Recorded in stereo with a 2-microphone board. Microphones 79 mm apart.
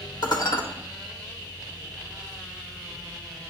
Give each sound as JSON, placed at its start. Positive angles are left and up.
{"t": 0.2, "sound": "dishes clattering", "side_deg": 60, "distance_m": 0.9}